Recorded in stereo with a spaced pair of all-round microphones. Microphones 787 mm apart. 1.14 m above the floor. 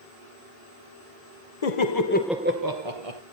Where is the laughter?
50° left (ahead or behind), 0.9 m; by 3.2 s 50° right (ahead or behind), 1.1 m.